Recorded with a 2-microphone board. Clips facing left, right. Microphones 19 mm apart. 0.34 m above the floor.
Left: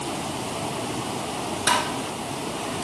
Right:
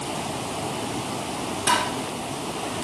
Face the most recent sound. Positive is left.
turn(degrees=45)  # may be behind; listen again after turning